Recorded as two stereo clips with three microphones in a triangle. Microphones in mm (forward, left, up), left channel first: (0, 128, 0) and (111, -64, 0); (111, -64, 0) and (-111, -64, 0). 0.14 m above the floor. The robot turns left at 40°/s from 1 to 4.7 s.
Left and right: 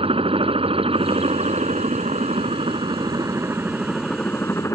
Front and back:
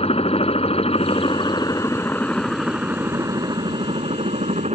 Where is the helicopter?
25° right; by 4.8 s 175° right.